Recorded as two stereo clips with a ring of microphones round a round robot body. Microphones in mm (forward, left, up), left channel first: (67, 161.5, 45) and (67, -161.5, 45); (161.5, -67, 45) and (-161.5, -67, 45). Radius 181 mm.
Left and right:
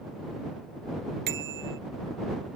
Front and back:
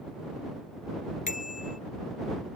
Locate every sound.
1.3 s a bicycle bell: 65° right